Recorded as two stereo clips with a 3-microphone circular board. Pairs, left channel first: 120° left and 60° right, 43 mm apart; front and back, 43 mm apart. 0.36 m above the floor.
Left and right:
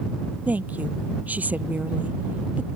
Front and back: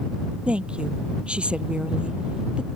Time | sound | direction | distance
0.5 | a woman speaking | 115° right | ?